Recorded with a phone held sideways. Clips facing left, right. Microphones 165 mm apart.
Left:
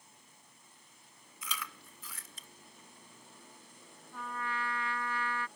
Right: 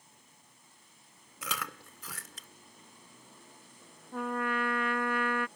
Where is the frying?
No frying in this recording.